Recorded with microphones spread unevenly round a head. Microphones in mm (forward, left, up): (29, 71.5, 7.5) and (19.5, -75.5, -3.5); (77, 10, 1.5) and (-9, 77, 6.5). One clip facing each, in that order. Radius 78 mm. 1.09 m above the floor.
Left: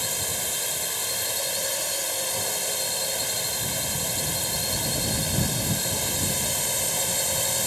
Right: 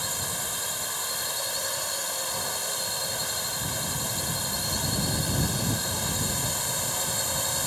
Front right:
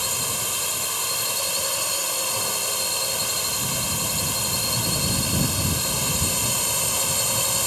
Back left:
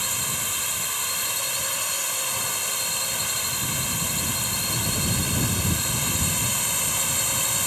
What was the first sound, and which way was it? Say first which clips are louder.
A drone: left 2 dB, front right 3 dB; 20° left.